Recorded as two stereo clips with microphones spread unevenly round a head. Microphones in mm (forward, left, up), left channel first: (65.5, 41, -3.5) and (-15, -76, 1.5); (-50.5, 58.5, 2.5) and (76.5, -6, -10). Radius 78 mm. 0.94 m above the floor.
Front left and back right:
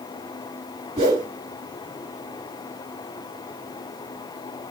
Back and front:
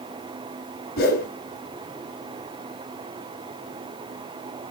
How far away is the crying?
I don't hear crying.